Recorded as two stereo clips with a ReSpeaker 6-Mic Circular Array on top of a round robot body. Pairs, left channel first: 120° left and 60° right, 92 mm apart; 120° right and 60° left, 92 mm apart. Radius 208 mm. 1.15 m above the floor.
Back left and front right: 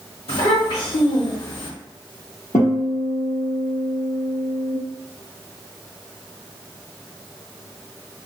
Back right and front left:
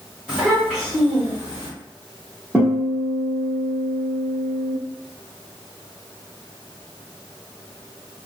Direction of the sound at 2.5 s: 140° left.